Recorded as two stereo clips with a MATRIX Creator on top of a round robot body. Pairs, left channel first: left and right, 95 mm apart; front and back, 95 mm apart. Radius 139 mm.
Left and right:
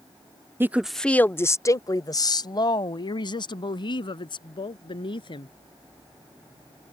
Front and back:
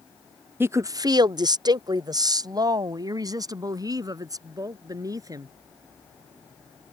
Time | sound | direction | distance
0.6 | a woman speaking | 135° right | ?